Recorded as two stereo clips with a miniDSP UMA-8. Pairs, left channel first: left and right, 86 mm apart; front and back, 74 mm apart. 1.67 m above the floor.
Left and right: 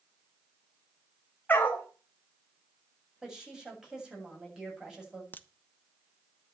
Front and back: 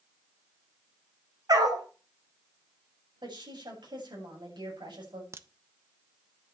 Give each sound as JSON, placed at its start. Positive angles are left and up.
{"t": 1.5, "sound": "a dog barking", "azimuth_deg": 155, "distance_m": 3.5}
{"t": 3.2, "sound": "a woman speaking", "azimuth_deg": -175, "distance_m": 8.0}
{"t": 5.3, "sound": "a crack", "azimuth_deg": 150, "distance_m": 0.9}